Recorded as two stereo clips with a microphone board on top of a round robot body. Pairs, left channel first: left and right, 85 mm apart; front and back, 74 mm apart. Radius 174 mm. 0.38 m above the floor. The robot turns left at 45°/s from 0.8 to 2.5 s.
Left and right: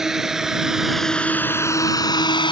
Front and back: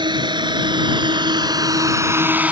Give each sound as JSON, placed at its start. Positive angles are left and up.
{"t": 0.0, "sound": "a drone", "azimuth_deg": -175}